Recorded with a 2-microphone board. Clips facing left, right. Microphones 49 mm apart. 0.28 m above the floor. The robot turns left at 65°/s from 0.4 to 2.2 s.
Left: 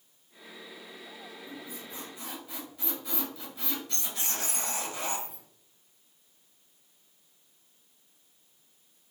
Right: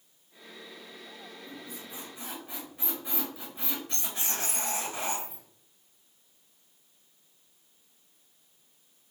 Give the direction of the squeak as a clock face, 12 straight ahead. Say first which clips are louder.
Left 1 dB; 12 o'clock.